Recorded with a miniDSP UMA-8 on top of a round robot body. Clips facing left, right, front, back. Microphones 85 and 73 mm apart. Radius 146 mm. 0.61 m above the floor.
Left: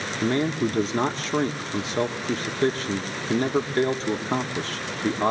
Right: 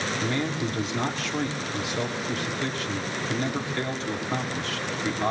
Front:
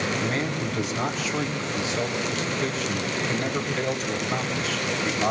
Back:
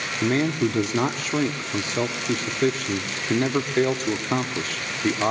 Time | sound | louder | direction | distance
0.2 | a man speaking | left 8 dB, back 5 dB | 140° left | 1.8 m